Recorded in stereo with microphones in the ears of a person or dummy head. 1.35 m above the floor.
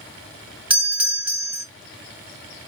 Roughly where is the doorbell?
Centre.